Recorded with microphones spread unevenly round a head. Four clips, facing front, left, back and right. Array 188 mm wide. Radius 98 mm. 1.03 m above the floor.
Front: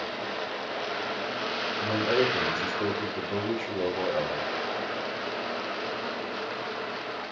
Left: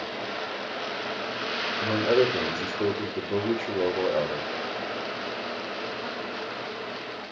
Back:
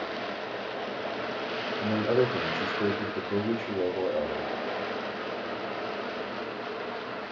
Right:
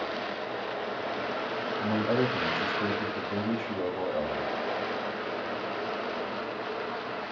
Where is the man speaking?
120° left, 4.5 m.